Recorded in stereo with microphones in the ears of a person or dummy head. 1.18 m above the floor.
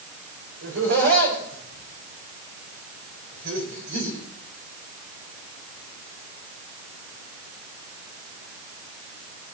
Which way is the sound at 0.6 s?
60° right (ahead or behind).